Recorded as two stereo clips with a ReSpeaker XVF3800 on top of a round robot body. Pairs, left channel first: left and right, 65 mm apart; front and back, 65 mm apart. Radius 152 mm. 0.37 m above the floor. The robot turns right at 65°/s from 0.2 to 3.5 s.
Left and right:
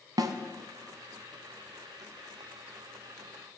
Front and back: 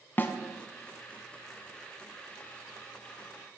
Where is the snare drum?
65° right, 1.3 m; by 0.3 s 55° right, 1.3 m.